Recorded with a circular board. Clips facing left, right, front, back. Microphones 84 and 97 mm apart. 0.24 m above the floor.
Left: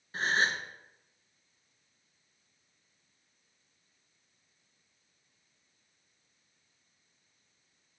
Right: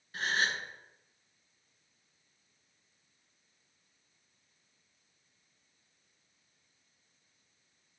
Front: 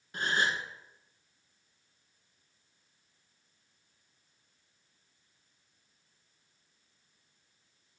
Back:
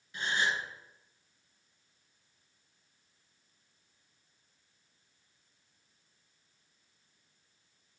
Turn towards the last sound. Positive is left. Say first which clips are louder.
# left 3 dB, front 1 dB
turn(degrees=35)